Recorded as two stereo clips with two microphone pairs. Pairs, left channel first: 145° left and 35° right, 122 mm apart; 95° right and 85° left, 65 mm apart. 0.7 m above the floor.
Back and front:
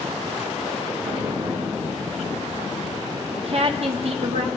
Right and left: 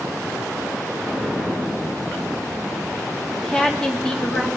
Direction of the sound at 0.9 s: 20° right.